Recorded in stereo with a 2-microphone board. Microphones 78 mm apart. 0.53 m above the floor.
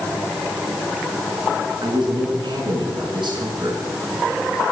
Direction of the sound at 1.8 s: 75° right (ahead or behind).